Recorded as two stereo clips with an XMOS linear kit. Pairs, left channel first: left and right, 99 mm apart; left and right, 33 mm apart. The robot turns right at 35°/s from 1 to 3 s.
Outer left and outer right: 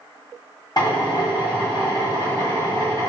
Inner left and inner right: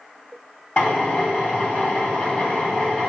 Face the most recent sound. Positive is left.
turn(degrees=140)